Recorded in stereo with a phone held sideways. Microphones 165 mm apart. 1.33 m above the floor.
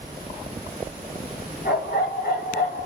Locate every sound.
1.6 s a dog barking: 75° left (ahead or behind), 4 m; by 2.9 s 70° left (ahead or behind), 3 m